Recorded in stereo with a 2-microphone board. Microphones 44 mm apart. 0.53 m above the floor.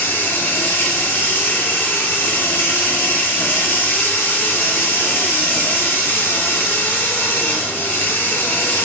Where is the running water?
45° left (ahead or behind), 1.0 m.